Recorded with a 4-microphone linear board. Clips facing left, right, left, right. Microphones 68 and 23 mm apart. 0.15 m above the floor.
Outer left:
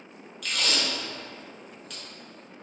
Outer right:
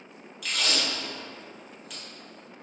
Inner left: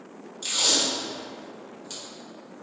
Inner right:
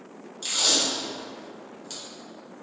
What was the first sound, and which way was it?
Tape being pulled, 5° right (ahead or behind).